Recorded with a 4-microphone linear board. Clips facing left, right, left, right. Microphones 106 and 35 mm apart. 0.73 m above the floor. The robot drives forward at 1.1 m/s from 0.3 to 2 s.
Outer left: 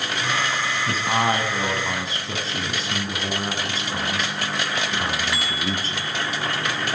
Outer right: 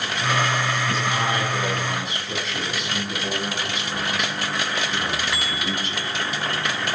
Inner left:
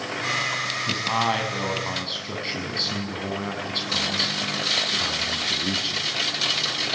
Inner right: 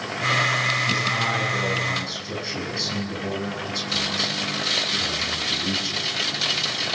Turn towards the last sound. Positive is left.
turn(degrees=35)  # may be behind; listen again after turning